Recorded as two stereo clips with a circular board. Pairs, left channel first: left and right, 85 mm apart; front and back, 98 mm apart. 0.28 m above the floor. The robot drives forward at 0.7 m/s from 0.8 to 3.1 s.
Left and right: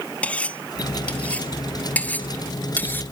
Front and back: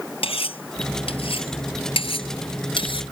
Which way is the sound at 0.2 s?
15° left.